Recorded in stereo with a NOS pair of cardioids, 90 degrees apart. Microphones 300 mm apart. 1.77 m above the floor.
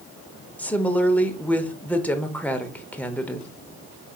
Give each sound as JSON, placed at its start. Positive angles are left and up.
{"t": 0.6, "sound": "a woman speaking", "azimuth_deg": 5, "distance_m": 0.8}